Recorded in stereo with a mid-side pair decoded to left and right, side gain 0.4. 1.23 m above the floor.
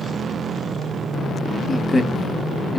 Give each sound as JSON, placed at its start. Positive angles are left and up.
{"t": 1.7, "sound": "a man speaking", "azimuth_deg": 30, "distance_m": 0.9}